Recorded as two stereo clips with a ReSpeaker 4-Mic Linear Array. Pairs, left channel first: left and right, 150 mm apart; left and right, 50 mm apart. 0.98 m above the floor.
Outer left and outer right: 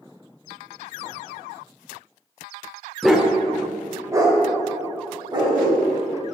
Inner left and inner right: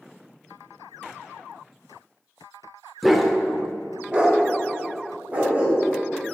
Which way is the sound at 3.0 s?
Centre (ahead or behind).